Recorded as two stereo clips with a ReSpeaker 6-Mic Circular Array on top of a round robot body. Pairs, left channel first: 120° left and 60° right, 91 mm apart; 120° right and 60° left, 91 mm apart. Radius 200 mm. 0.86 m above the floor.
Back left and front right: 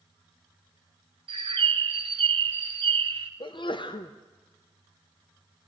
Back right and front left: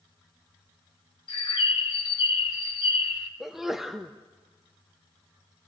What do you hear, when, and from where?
1.3 s a bird: 85° right, 0.9 m
3.4 s a sneeze: 145° left, 0.9 m